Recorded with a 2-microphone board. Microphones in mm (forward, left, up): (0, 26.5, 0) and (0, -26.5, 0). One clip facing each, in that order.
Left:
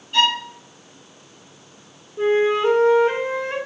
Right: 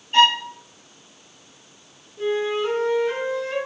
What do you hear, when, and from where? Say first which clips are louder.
0.1 s a violin: right 3 dB; 35° right (ahead or behind), 4.5 m
2.2 s a flute: left 5 dB; 35° left (ahead or behind), 1.8 m